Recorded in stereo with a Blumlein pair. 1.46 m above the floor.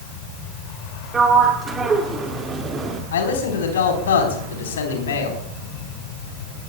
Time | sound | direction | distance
1.1 | a sliding door | 20° right | 2 m
3.1 | a man speaking | 65° left | 4 m